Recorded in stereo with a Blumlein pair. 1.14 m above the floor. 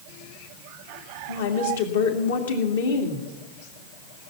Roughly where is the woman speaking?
Ahead left.